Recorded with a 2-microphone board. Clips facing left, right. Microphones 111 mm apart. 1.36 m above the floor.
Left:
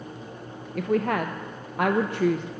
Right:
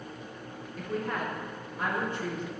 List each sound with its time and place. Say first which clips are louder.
0.8 s a woman speaking: left 9 dB; 75° left (ahead or behind), 0.6 m